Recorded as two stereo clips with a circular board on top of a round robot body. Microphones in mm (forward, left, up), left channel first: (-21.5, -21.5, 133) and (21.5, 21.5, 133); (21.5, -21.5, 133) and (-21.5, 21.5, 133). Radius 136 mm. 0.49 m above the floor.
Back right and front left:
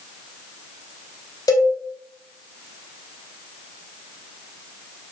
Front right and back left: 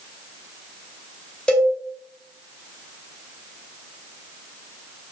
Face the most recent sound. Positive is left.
turn(degrees=-120)